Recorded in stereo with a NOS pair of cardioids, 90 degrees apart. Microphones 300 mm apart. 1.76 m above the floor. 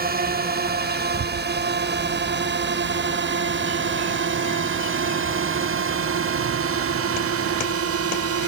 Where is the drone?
30° right; by 8.5 s 55° right.